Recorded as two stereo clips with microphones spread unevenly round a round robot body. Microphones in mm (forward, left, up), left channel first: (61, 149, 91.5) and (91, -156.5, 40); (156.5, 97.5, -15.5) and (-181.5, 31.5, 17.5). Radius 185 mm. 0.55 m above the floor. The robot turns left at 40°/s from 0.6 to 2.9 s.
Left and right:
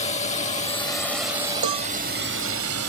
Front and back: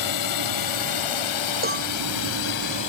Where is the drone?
25° left; by 2.9 s 65° right.